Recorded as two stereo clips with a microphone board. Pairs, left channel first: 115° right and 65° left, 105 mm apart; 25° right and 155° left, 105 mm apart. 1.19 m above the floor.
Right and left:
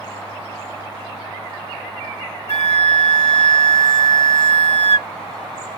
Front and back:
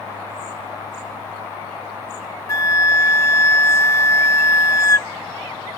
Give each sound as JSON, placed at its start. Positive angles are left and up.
{"t": 2.5, "sound": "a flute", "azimuth_deg": -85}